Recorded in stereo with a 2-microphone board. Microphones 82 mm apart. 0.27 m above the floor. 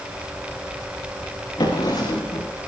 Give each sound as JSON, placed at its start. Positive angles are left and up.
{"t": 1.6, "sound": "a drawer", "side_deg": 60, "distance_m": 7.0}